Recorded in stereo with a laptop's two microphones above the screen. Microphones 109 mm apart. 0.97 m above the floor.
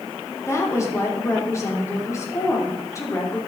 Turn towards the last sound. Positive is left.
turn(degrees=25)  # may be behind; listen again after turning